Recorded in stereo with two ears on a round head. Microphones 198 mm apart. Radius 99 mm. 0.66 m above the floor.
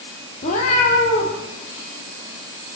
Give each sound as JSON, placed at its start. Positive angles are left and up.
{"t": 0.4, "sound": "a cat meowing", "side_deg": 35, "distance_m": 9.0}